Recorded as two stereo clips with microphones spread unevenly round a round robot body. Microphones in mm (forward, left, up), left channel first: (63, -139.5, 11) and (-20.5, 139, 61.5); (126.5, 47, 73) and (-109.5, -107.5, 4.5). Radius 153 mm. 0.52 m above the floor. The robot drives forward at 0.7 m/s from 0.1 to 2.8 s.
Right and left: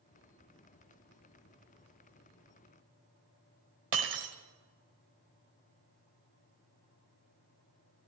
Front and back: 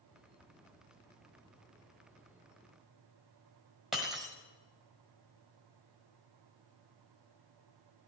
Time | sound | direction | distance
3.9 | breaking glass | 125° left | 1.5 m